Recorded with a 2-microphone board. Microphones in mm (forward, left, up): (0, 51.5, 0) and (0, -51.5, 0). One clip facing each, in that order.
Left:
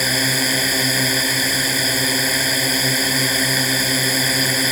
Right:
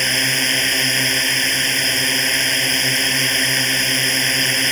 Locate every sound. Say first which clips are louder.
0.0 s a drone: left 2 dB; 10° left (ahead or behind)